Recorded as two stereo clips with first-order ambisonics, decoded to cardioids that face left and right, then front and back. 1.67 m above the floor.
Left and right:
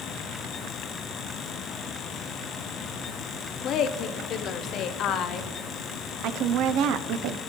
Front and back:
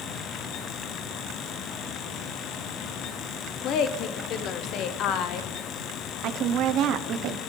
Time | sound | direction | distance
3.6 | a woman speaking | 45° left | 0.9 m
6.2 | a woman speaking | 135° right | 0.8 m